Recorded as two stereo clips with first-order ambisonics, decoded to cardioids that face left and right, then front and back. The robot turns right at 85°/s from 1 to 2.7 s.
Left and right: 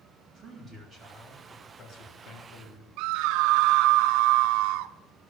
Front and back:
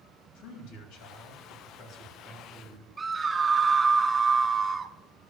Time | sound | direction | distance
0.3 | a man speaking | 30° right | 3 m
3.0 | a scream | 100° right | 0.7 m